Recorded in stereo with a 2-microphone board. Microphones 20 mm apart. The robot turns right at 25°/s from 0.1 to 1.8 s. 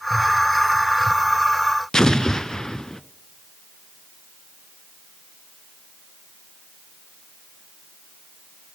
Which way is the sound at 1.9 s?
30° left (ahead or behind).